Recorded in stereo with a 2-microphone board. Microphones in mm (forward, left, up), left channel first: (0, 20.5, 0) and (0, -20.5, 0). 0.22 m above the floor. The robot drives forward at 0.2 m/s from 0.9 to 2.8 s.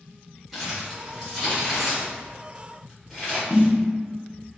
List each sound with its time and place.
0.5 s crumpling: centre (ahead or behind), 1.7 m
3.5 s a snare drum: 10° right (ahead or behind), 0.9 m